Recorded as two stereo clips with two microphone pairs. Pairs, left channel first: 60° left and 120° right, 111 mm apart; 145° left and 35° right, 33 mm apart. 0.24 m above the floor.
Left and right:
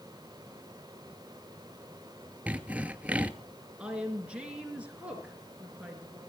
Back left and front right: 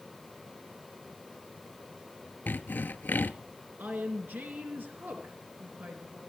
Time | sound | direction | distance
2.5 | sawing | 160° left | 0.8 m
3.8 | a woman speaking | 40° right | 3.5 m